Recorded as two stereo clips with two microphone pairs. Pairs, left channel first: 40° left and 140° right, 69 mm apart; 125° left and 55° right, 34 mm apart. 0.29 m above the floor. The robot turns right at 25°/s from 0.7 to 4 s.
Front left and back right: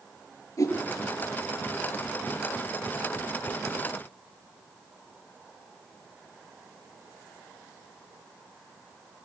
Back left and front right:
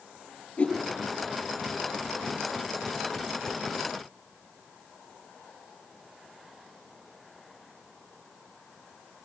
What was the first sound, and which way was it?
A whoosh, 75° left.